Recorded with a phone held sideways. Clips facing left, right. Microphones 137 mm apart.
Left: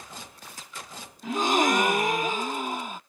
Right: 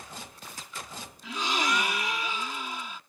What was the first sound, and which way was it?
A gasp, 50° left (ahead or behind).